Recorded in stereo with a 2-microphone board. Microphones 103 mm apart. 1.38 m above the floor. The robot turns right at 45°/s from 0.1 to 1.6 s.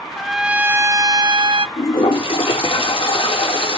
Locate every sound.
0.2 s a trumpet: 175° left, 0.5 m; by 1.7 s 120° right, 0.5 m
1.8 s a toilet flushing: 60° left (ahead or behind), 3 m